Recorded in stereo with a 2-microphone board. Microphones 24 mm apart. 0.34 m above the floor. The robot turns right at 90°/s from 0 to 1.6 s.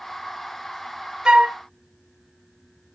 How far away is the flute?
About 0.7 m.